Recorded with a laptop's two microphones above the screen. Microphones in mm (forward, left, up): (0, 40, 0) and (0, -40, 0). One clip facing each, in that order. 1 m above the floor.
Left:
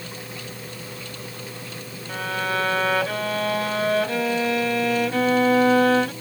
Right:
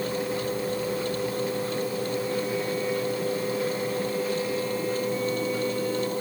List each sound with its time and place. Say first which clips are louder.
0.0 s a machine running: right 9 dB; 40° right (ahead or behind)
2.1 s a violin: left 1 dB; 80° left